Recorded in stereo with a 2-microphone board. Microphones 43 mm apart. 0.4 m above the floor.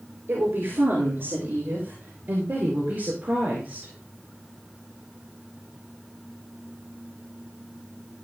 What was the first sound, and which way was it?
A woman speaking, 60° right (ahead or behind).